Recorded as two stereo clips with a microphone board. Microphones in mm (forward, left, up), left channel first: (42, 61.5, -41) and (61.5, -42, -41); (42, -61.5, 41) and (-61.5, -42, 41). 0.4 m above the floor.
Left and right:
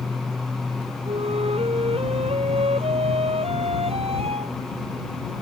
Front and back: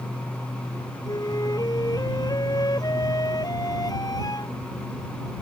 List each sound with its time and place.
1.1 s a flute: 60° right